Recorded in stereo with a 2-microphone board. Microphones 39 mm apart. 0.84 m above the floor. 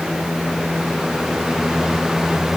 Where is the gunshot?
No gunshot in this recording.